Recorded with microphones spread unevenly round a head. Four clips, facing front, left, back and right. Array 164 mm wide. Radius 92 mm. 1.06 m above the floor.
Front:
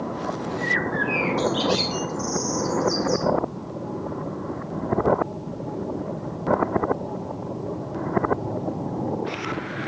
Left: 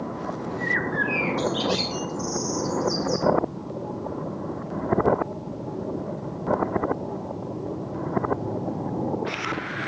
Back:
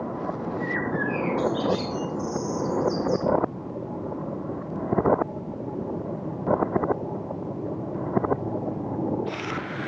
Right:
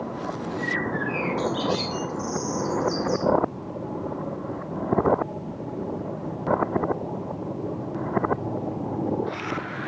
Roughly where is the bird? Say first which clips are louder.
Left 2 dB, front 2 dB; ahead left.